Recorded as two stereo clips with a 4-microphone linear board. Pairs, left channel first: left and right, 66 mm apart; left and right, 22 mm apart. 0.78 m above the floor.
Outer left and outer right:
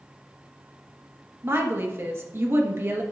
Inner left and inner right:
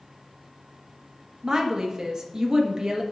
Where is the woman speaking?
40° right (ahead or behind), 1.1 m.